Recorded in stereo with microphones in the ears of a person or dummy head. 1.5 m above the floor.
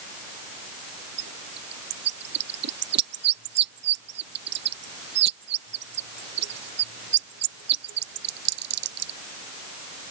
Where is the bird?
65° right (ahead or behind).